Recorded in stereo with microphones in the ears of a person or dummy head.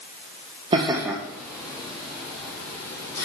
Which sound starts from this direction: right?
Laughter, at 0.7 s.